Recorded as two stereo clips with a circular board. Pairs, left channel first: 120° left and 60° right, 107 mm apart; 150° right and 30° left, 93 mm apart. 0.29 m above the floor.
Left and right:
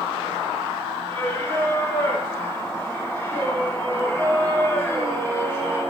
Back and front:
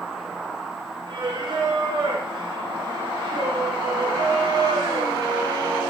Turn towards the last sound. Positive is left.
turn(degrees=55)